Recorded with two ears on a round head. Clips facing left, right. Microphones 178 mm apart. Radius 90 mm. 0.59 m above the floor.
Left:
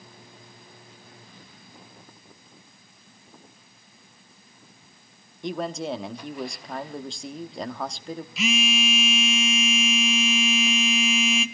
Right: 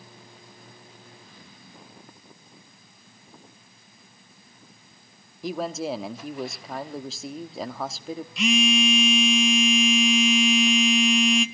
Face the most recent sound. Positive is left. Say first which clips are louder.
# right 4 dB
turn(degrees=0)  # may be behind; listen again after turning